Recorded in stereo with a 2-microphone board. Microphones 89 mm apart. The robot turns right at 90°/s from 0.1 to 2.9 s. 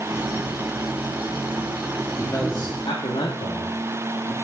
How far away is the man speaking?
About 1.4 m.